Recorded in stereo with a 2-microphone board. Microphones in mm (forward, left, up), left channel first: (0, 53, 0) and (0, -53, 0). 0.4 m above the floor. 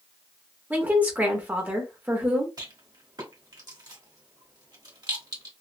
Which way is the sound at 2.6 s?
35° right (ahead or behind).